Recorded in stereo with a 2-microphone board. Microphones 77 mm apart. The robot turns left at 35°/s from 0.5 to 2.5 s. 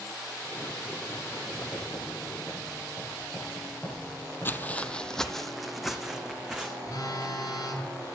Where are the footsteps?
30° left (ahead or behind), 0.6 m; by 6.7 s 10° right (ahead or behind), 1.8 m.